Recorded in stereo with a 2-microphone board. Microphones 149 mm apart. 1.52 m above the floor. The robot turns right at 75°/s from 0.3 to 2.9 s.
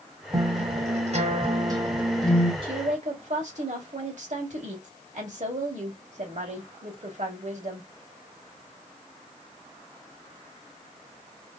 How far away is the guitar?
About 1.2 m.